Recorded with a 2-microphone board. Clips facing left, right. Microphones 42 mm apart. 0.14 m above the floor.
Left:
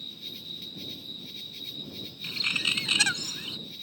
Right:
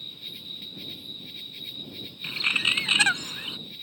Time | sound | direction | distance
0.0 | an insect | 15° right (ahead or behind) | ?
2.2 | a bird | 25° right (ahead or behind) | ?